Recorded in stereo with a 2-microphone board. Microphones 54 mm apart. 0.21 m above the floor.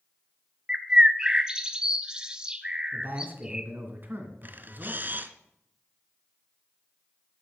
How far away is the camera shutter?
About 0.8 m.